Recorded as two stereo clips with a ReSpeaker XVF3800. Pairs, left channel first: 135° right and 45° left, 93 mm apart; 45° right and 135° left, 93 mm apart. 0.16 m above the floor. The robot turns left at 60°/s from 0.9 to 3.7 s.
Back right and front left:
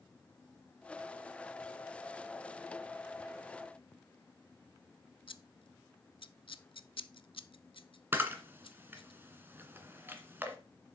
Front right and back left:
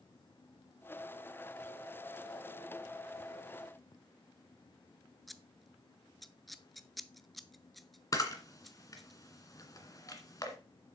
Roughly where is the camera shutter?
Ahead.